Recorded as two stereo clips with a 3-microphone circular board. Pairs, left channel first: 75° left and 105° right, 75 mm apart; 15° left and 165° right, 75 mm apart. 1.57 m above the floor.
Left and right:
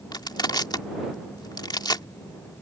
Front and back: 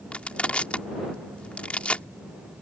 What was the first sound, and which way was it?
Crushing, 90° left.